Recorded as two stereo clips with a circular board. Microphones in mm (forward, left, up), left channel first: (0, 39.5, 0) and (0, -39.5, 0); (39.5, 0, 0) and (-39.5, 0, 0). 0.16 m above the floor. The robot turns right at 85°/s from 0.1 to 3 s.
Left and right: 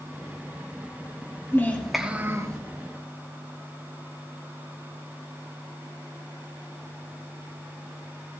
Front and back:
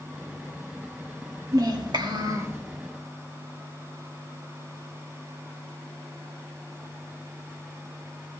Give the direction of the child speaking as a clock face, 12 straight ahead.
7 o'clock.